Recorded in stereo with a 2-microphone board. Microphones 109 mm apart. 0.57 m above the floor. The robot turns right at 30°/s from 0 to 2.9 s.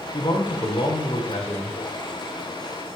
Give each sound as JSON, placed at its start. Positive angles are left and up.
{"t": 0.1, "sound": "a man speaking", "azimuth_deg": 40, "distance_m": 2.0}